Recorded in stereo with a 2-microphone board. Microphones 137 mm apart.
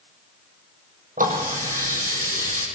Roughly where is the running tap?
Right.